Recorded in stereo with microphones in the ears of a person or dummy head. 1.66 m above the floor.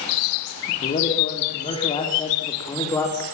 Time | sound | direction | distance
0.7 | a man speaking | 35° left (ahead or behind) | 4 m